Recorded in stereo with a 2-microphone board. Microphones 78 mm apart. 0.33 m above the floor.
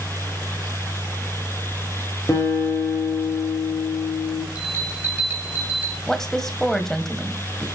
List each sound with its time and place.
2.3 s a guitar: 35° left (ahead or behind), 4.5 m
4.5 s a bell: 25° right (ahead or behind), 2.5 m
6.1 s a woman speaking: 5° left (ahead or behind), 1.7 m